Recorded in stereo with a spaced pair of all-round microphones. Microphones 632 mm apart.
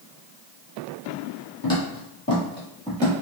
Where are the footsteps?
30° left (ahead or behind), 1.6 m; by 3.1 s 5° left (ahead or behind), 1.3 m.